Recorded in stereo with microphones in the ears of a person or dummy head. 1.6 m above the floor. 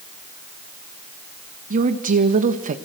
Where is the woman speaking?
50° right (ahead or behind), 1.5 m.